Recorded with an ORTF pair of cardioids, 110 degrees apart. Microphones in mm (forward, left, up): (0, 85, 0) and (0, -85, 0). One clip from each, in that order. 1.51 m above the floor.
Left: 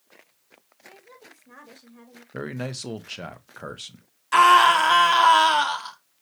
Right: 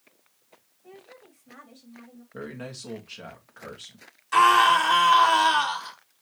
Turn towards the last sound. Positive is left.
turn(degrees=25)